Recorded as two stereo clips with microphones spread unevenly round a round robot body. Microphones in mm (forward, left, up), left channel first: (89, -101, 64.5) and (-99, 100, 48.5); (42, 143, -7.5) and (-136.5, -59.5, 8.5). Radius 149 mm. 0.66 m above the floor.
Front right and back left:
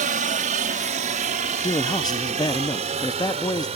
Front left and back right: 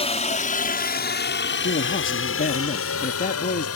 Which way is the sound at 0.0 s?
100° left.